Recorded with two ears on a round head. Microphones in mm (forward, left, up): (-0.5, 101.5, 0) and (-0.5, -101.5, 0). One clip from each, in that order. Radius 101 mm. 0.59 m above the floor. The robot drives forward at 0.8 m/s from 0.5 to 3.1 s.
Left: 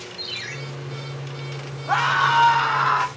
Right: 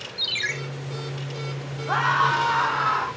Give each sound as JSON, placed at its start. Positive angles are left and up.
{"t": 0.2, "sound": "a ringtone", "side_deg": -45, "distance_m": 2.5}
{"t": 1.9, "sound": "a scream", "side_deg": 30, "distance_m": 3.5}